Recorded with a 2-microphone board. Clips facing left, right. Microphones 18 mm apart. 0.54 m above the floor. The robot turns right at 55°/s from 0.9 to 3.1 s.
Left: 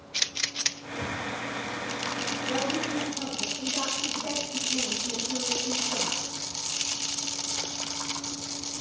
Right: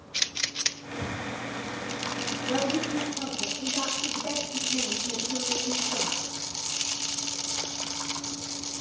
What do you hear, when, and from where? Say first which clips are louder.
0.9 s breathing: left 1 dB; 45° right (ahead or behind), 3 m; by 1.2 s 30° right (ahead or behind), 3 m
2.5 s a woman speaking: right 3 dB; 20° right, 9.5 m; by 6.2 s 15° left, 9.5 m